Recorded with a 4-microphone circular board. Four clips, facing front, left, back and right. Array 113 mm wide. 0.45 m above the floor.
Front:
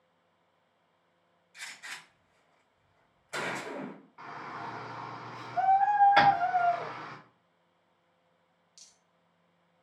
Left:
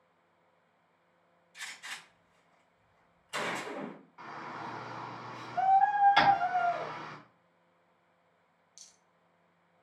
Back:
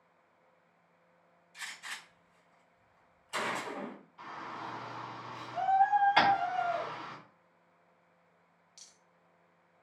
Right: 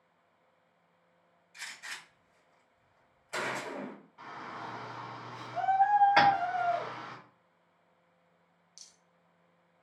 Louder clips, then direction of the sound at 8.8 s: Right 1 dB, back 2 dB; 160° right.